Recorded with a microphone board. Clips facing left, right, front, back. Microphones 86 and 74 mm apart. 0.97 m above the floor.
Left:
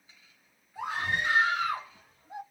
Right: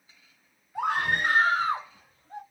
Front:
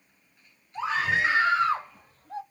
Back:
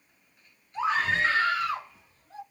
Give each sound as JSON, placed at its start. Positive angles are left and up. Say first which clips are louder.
{"t": 0.8, "sound": "a scream", "louder": "right 5 dB, even", "azimuth_deg": -95, "distance_m": 1.1}